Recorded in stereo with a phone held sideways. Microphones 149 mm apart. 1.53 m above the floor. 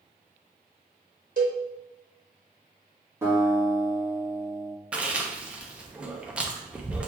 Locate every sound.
1.4 s a cowbell: 65° right (ahead or behind), 1.3 m
3.2 s a guitar: 20° right (ahead or behind), 2.5 m
4.9 s chewing: 10° right (ahead or behind), 0.8 m